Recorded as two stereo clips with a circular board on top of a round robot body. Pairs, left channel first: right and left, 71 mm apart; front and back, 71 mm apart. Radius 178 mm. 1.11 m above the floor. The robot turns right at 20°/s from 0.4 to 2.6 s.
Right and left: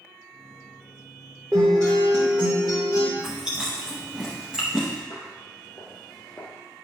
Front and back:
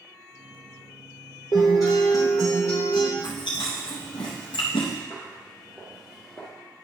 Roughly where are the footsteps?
Right.